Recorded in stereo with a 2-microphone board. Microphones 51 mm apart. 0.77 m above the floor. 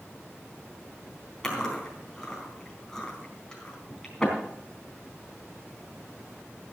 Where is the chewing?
10° left (ahead or behind), 4 m.